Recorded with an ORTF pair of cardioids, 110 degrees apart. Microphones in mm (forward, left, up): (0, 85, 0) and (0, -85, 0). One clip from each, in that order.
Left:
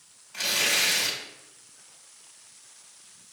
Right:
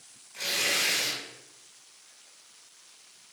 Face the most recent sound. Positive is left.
turn(degrees=55)